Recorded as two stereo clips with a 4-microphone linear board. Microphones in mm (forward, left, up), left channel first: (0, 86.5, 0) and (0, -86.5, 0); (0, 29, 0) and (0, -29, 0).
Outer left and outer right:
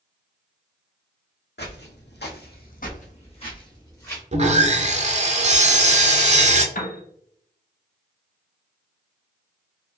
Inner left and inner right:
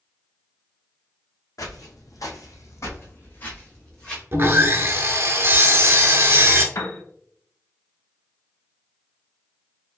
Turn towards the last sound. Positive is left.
turn(degrees=55)  # may be behind; listen again after turning